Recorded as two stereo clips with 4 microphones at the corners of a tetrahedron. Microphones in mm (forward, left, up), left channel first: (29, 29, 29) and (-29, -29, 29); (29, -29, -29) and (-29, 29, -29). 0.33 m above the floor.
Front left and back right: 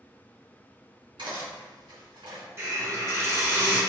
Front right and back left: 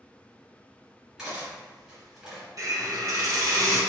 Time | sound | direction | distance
1.2 | cutlery clinking | 145° right | 1.8 m
2.6 | a hiss | 170° left | 1.5 m